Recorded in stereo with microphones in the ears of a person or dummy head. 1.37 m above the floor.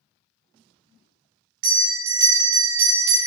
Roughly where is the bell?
Right.